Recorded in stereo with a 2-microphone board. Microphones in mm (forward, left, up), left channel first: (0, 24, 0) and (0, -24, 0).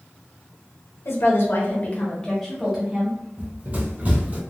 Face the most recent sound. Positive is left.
turn(degrees=-30)  # may be behind; listen again after turning